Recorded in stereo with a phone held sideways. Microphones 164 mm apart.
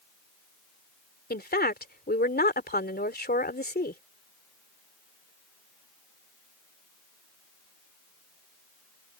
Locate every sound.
1.3 s a woman speaking: 75° left (ahead or behind)